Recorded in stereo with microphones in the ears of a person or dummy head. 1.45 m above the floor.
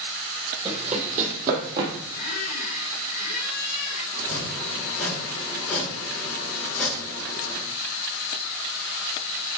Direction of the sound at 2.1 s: 45° left (ahead or behind).